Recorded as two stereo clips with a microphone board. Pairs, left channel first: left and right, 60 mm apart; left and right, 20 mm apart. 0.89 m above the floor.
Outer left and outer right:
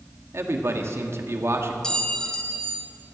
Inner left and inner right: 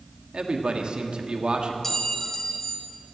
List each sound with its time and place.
0.3 s a man speaking: 50° right (ahead or behind), 1.6 m
1.8 s a clink: 15° left (ahead or behind), 1.5 m